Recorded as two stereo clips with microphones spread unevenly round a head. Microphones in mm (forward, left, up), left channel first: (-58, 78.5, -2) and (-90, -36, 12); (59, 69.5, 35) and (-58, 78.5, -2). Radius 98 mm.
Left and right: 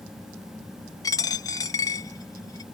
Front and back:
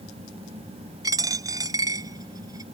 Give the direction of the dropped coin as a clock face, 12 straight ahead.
8 o'clock.